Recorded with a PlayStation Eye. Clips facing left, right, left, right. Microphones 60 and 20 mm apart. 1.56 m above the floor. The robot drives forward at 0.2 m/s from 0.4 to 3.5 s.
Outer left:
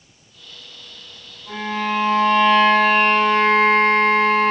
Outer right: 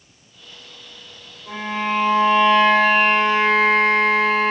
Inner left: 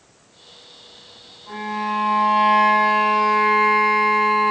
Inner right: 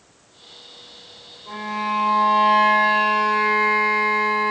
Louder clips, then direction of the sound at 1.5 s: Even, even; 25° right (ahead or behind).